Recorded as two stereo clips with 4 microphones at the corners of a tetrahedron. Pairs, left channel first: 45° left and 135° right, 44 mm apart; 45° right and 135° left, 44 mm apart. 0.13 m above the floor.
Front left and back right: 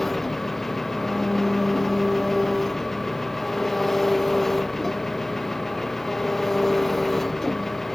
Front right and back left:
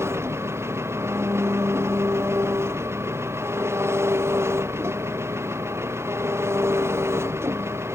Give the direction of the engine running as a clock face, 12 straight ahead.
8 o'clock.